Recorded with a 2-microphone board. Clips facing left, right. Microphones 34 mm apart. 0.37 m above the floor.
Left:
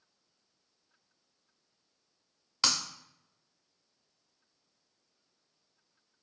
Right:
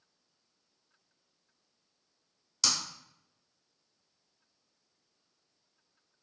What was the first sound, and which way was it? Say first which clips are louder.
Breaking glass: left 2 dB; 40° left (ahead or behind).